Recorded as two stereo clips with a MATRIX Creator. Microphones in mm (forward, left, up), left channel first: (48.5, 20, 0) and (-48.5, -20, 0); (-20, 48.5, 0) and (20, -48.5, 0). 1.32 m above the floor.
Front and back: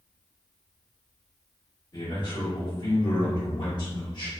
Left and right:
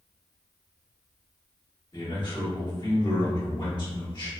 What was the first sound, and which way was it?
A man speaking, 65° left.